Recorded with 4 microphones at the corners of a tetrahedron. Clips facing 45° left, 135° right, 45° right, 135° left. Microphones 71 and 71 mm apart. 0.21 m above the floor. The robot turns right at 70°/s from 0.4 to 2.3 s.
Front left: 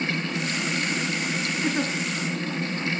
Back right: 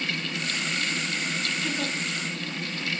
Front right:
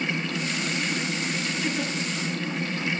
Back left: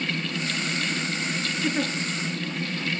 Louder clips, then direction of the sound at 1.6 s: Front left 7 dB, back left 4 dB; 70° left.